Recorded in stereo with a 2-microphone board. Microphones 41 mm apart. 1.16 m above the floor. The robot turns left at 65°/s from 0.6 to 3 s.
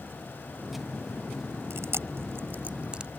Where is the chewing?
70° right (ahead or behind); by 3.1 s 25° right (ahead or behind).